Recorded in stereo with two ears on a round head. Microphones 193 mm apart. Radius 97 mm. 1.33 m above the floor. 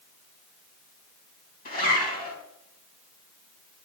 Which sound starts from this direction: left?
A zipper, at 1.6 s.